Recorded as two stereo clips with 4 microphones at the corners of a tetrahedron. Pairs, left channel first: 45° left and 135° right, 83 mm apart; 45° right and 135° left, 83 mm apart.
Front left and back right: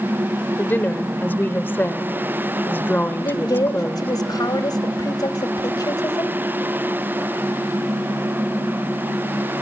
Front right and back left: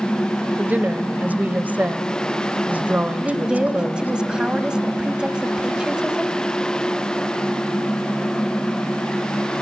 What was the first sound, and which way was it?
A woman speaking, 85° left.